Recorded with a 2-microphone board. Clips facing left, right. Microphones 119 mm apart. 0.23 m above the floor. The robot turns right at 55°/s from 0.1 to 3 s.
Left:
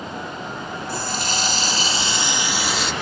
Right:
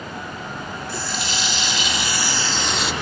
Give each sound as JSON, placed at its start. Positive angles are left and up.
{"t": 0.9, "sound": "a running tap", "azimuth_deg": 75, "distance_m": 1.2}